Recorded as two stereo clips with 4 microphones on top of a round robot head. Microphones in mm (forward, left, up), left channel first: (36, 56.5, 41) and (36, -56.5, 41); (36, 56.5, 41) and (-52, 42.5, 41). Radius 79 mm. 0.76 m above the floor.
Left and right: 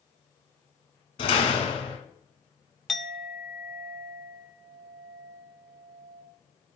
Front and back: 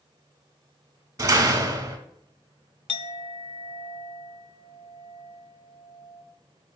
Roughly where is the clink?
Ahead.